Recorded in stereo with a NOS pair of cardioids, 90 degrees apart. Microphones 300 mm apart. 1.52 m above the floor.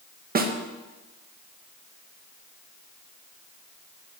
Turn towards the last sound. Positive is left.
turn(degrees=-30)